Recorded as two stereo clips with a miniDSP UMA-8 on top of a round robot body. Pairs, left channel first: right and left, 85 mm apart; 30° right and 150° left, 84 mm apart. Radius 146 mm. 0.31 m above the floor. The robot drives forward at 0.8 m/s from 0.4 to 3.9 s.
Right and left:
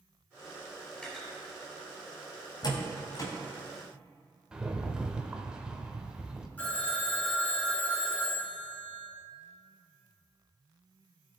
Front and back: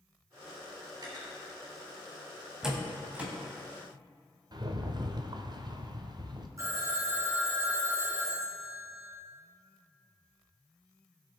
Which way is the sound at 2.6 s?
130° right.